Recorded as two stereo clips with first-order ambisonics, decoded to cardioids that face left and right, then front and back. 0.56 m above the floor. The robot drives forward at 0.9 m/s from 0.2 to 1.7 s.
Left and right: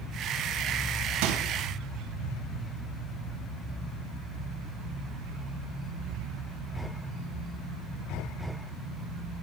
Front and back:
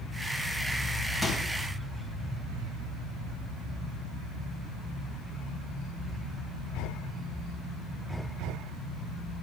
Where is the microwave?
85° right, 2 m; by 1.5 s 95° right, 2 m.